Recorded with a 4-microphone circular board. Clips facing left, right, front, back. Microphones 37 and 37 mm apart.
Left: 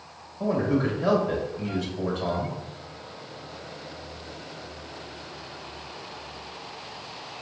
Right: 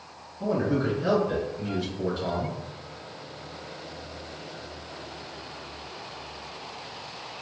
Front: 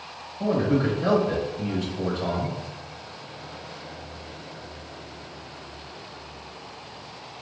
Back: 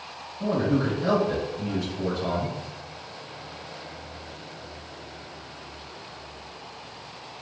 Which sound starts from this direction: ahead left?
A man speaking, at 0.4 s.